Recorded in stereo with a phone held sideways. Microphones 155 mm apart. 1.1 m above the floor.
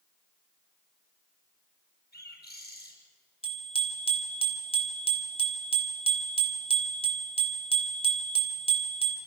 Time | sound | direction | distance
2.1 | a bird | 80° left | 5 m
3.4 | a bicycle bell | 35° left (ahead or behind) | 3 m